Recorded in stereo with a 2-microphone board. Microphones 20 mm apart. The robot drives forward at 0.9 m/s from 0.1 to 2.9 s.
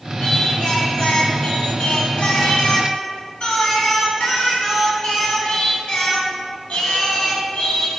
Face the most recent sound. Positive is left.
turn(degrees=65)  # may be behind; listen again after turning